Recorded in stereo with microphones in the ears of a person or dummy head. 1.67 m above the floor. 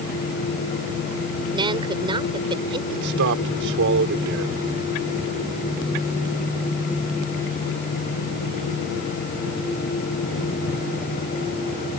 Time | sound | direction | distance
1.5 | a woman speaking | 25° right (ahead or behind) | ?
2.9 | a man speaking | 60° right (ahead or behind) | ?